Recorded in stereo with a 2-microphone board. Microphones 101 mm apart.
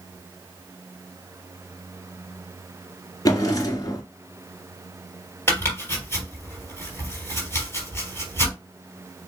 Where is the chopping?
20° left (ahead or behind), 3 m.